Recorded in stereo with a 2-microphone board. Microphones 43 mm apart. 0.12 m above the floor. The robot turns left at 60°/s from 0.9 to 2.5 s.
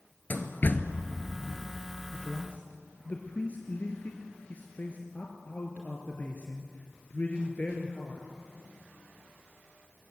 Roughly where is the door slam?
Left.